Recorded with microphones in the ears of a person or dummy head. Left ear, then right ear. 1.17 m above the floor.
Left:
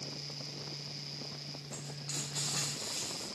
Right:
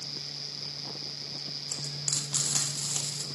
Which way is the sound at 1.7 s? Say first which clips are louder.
Right 10 dB; 85° right.